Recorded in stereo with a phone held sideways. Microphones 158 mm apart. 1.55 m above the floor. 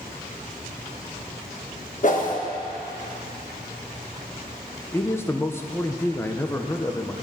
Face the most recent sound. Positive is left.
turn(degrees=15)  # may be behind; listen again after turning